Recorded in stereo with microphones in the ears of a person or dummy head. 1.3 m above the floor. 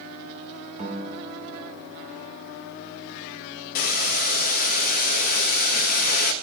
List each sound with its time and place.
0.8 s a guitar: 40° right (ahead or behind), 2.0 m
3.8 s boiling: 60° left (ahead or behind), 0.9 m